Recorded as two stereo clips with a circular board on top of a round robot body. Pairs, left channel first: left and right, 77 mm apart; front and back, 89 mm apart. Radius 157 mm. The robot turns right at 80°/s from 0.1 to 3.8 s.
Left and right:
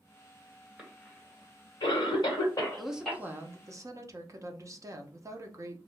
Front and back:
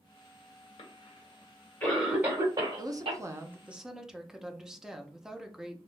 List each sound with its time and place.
0.8 s a cough: 10° right, 1.5 m; by 3.2 s 175° right, 1.5 m
2.8 s a woman speaking: straight behind, 0.8 m; by 5.9 s 100° right, 0.8 m